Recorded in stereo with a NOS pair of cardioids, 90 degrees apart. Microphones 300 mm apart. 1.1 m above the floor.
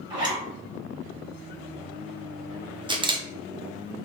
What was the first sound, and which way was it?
A zipper, 15° right.